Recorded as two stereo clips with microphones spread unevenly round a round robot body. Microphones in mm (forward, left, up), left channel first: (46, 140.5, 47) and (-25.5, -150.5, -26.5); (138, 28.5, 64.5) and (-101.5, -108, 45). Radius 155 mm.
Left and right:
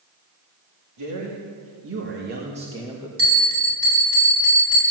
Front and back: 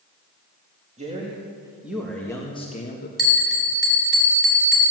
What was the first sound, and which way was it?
A man speaking, 85° right.